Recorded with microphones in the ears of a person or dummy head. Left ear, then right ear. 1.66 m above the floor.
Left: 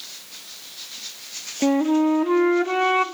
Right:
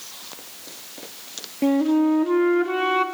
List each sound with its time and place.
1.6 s a flute: 30° left (ahead or behind), 0.5 m